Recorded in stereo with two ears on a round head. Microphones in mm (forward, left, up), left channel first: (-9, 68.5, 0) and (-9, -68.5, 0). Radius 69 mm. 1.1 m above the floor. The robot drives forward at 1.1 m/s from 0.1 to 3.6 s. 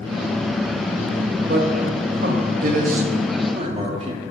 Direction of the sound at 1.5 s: 70° right (ahead or behind).